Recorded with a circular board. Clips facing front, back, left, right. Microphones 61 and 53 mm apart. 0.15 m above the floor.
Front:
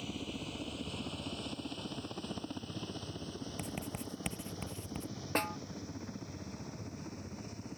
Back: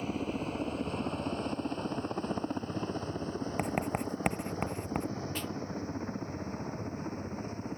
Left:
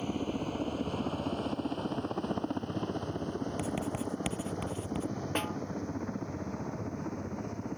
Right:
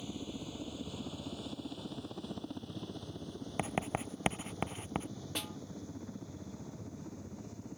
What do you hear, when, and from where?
0.0 s a helicopter: 125° left
3.6 s writing: 145° right
5.3 s a snare drum: 40° left